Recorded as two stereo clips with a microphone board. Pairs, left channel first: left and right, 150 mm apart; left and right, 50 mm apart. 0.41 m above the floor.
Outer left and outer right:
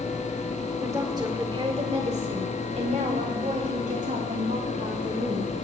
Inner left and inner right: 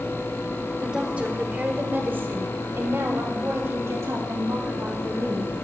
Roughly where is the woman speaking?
Centre.